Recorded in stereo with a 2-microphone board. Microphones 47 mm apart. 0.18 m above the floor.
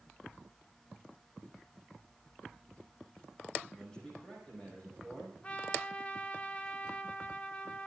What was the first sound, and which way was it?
A man speaking, 20° left (ahead or behind).